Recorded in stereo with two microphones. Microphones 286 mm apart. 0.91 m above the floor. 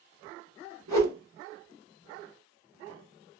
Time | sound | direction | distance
0.9 | a whoosh | 65° right (ahead or behind) | 1.1 m